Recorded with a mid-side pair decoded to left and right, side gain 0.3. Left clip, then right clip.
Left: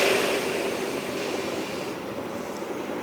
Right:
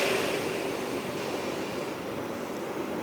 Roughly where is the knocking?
No knocking in this recording.